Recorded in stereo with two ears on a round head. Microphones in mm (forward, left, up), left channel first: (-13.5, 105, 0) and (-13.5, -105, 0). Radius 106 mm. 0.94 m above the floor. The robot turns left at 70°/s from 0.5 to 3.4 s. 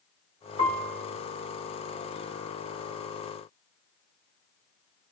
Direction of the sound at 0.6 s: 55° right.